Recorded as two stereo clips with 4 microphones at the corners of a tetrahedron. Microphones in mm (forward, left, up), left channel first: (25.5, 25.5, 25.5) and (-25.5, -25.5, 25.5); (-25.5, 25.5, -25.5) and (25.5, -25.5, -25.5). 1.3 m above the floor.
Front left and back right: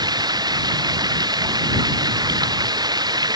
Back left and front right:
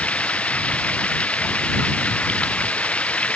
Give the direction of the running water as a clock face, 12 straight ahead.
5 o'clock.